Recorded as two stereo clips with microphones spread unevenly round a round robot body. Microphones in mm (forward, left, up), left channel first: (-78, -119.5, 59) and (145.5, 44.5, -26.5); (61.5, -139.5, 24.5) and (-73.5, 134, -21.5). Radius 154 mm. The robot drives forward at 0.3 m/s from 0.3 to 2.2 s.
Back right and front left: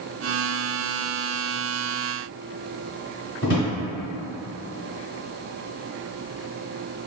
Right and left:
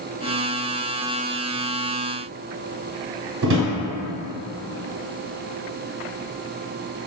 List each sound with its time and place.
3.4 s a drawer: 160° left, 1.1 m